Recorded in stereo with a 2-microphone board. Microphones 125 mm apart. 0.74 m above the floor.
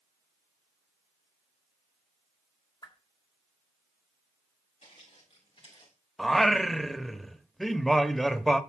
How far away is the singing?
About 0.7 m.